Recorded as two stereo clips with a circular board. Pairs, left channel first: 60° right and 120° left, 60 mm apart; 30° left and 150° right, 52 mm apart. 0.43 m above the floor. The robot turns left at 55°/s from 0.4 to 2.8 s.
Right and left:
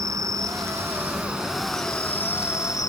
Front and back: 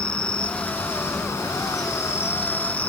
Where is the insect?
95° left, 1.2 m; by 2.9 s 35° right, 1.2 m.